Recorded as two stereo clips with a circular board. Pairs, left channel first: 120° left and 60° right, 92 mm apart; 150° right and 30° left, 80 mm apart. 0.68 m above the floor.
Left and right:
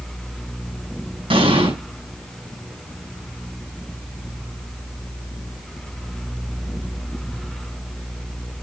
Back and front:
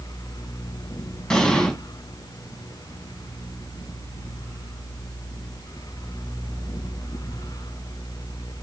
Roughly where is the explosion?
Ahead right.